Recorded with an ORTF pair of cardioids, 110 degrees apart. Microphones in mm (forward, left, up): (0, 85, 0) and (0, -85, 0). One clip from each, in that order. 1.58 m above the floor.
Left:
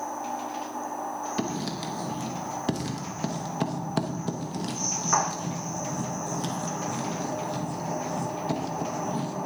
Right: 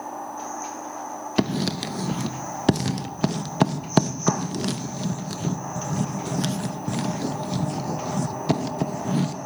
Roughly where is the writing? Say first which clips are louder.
Right 5 dB; ahead right.